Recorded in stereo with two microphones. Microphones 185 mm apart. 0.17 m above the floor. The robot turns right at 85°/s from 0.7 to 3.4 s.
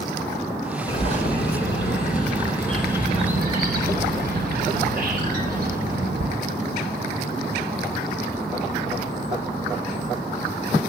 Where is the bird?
20° left, 3 m; by 6.2 s 125° right, 3 m.